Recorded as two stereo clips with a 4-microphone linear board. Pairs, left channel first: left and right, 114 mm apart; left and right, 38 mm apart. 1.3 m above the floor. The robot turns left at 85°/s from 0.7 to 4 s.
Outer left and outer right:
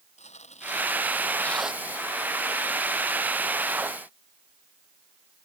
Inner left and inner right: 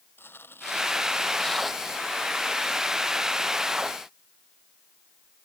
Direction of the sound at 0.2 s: 80° left.